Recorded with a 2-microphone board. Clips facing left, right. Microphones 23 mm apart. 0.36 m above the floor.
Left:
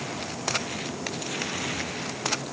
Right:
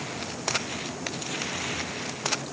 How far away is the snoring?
No snoring in this recording.